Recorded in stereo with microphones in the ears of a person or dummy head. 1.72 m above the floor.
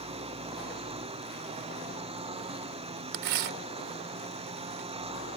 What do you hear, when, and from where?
0.0 s a lawn mower: 25° right (ahead or behind)
3.1 s tearing paper: 65° right (ahead or behind)